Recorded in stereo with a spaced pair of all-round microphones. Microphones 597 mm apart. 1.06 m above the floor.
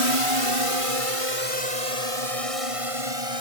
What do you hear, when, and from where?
0.0 s a drone: 60° right (ahead or behind); by 3.4 s 65° right (ahead or behind)